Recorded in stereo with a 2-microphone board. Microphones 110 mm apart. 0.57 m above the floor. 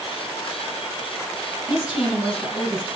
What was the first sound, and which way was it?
A woman speaking, centre (ahead or behind).